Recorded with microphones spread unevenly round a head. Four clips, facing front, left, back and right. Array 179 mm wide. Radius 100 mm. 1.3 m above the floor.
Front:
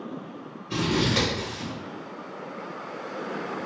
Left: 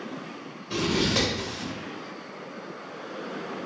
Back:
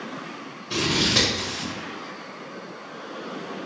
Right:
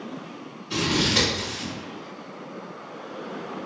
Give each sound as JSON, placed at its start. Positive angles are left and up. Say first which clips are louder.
{"t": 0.7, "sound": "scissors", "louder": "right 1 dB, even", "azimuth_deg": 125, "distance_m": 1.4}